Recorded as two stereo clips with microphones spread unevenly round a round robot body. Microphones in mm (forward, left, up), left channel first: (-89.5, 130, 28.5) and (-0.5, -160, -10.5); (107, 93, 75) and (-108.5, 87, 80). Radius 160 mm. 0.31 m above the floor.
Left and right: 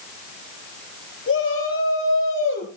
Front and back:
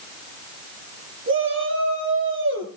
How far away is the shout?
About 8.5 m.